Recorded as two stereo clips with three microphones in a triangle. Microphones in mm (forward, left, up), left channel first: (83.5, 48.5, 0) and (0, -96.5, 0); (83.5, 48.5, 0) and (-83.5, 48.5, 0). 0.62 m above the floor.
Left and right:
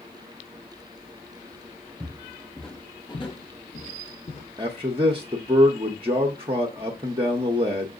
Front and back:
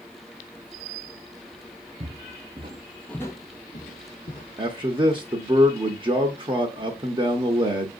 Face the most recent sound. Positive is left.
turn(degrees=-150)